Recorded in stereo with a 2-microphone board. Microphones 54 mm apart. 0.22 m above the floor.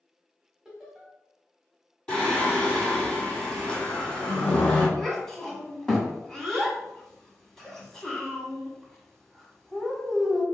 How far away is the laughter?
About 0.9 m.